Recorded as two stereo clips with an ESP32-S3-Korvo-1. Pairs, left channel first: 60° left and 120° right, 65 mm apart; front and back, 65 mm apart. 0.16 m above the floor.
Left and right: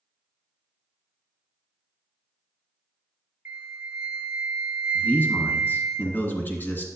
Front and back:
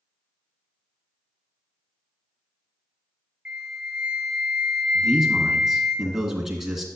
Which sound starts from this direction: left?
A man speaking, at 5.0 s.